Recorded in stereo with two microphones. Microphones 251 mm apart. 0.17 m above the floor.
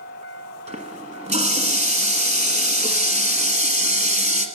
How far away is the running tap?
About 1.3 m.